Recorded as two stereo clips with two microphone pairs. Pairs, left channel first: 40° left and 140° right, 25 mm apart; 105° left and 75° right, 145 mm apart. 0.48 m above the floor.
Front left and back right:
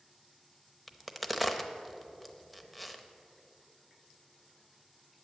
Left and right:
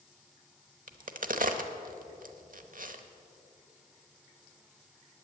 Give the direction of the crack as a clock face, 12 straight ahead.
2 o'clock.